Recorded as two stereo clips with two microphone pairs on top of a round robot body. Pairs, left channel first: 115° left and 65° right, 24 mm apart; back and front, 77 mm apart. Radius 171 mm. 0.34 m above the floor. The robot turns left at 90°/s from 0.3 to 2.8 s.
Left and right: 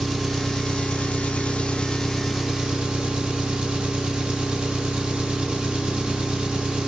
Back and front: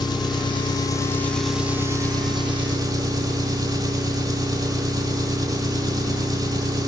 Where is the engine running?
165° right, 2 m; by 6.9 s 30° right, 2 m.